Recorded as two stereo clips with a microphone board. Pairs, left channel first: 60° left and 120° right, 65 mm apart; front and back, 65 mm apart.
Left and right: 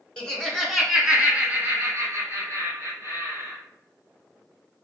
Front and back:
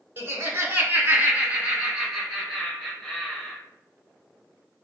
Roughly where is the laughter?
Behind left.